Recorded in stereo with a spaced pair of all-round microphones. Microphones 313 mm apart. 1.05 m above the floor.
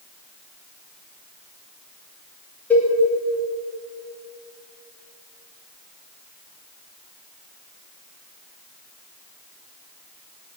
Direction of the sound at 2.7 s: 5° left (ahead or behind).